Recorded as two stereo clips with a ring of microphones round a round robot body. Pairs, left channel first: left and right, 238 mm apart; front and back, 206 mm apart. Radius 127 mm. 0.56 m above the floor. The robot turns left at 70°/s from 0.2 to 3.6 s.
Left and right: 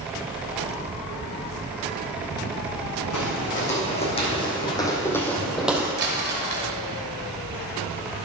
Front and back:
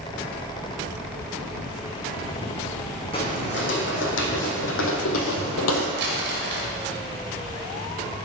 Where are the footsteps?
65° left, 2 m; by 5.9 s 10° right, 1.1 m.